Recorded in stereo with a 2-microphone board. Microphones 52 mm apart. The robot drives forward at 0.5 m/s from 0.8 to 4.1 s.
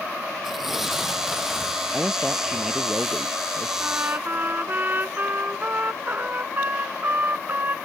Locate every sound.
0.4 s tearing paper: 5° right (ahead or behind)
1.9 s a man speaking: 5° right (ahead or behind)
3.8 s a trumpet: 35° right (ahead or behind)